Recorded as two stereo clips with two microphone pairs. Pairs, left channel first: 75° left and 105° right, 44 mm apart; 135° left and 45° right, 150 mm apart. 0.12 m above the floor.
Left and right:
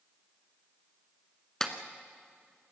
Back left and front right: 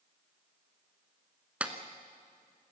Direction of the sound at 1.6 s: 20° left.